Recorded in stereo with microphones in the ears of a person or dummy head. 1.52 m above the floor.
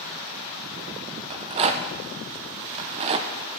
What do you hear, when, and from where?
1.3 s a rattle: 25° right (ahead or behind), 0.6 m